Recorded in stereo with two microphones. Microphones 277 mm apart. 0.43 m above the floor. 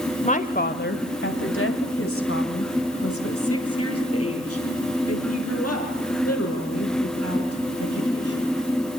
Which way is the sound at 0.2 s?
25° left (ahead or behind).